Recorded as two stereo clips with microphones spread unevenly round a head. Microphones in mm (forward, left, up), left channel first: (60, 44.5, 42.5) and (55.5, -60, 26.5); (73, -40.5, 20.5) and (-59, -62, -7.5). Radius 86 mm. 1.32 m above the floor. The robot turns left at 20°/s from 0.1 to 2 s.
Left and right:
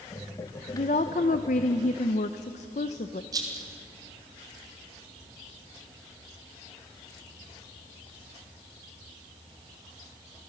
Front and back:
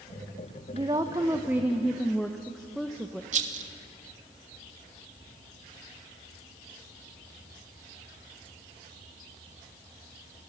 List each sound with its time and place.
0.7 s a woman speaking: 120° left, 0.7 m; by 3.2 s 95° left, 0.7 m
3.3 s a rattle: 150° right, 1.7 m